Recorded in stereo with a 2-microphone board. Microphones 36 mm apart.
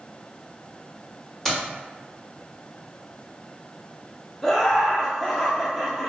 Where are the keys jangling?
10° left (ahead or behind), 1.1 m.